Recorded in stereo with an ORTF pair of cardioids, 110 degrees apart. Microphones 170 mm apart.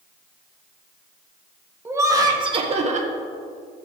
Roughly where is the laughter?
Ahead.